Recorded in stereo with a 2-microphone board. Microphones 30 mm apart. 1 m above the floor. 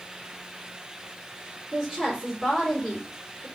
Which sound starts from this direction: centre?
A woman speaking, at 1.7 s.